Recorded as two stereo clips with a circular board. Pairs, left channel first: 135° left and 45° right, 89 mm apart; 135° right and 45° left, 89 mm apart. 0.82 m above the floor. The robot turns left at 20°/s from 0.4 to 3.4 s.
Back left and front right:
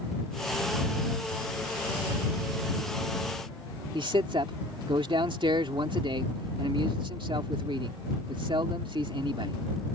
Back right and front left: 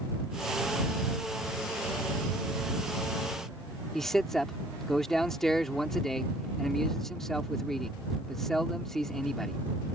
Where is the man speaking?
50° right.